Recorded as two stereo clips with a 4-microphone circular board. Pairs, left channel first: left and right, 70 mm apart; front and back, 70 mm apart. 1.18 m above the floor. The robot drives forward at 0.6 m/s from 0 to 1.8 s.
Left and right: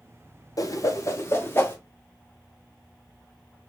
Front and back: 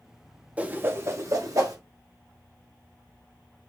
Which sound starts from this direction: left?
A whoosh, at 0.6 s.